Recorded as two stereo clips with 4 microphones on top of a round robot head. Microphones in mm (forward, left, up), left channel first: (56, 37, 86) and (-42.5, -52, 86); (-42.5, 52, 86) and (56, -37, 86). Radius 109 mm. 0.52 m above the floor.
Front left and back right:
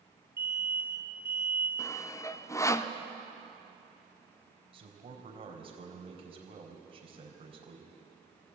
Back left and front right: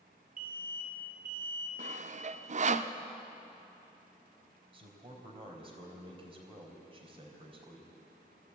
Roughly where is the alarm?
Ahead right.